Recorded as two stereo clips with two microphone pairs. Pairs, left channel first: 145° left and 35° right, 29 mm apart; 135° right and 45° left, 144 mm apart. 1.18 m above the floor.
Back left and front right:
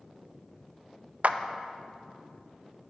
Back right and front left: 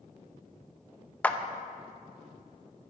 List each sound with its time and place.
1.2 s a clap: 55° right, 0.5 m